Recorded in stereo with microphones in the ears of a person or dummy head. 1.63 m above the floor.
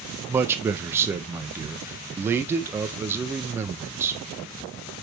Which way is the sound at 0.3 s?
15° right (ahead or behind).